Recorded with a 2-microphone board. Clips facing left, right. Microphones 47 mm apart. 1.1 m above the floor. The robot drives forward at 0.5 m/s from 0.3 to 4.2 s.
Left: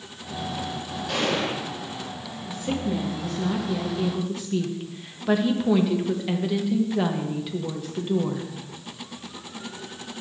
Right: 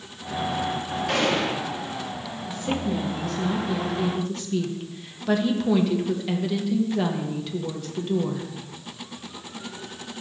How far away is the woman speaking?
About 1.4 m.